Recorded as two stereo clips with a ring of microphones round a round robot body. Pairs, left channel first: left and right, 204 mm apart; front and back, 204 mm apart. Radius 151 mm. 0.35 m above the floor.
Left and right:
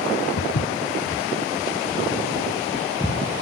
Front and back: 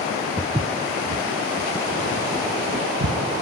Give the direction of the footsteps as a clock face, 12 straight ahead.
9 o'clock.